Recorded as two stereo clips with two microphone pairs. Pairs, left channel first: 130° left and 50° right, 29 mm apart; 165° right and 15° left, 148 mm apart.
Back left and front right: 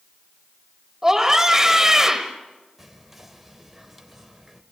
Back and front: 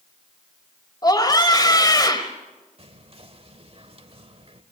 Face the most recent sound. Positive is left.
turn(degrees=30)